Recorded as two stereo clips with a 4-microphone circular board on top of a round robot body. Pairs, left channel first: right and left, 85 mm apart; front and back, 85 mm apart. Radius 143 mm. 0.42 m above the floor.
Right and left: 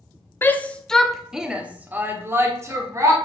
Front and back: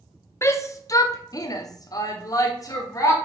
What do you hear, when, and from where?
0.4 s a shout: 40° right, 1.3 m; by 3.1 s 45° left, 2.5 m